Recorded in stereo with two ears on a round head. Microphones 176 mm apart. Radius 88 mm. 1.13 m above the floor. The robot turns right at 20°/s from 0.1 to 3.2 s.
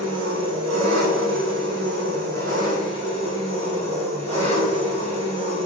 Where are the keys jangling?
I don't hear keys jangling.